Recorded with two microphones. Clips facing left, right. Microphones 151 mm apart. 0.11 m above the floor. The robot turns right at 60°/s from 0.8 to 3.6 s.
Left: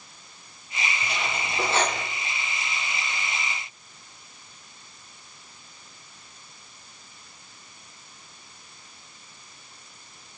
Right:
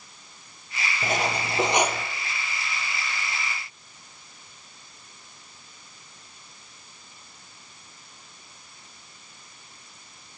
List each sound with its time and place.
1.0 s cutlery clinking: 60° right, 1.9 m; by 2.1 s straight ahead, 1.9 m